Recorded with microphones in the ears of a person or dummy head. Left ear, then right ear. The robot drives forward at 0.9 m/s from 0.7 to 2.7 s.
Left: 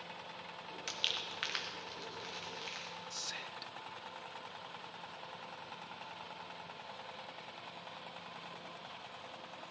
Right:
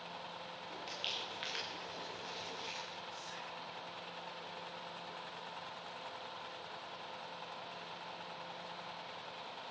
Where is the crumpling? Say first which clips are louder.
Left 4 dB; 45° left (ahead or behind), 1.0 m; by 3.0 s 15° left (ahead or behind), 2.5 m.